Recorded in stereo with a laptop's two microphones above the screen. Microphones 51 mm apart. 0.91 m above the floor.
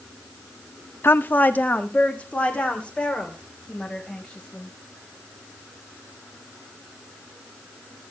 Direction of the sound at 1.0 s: 50° left (ahead or behind).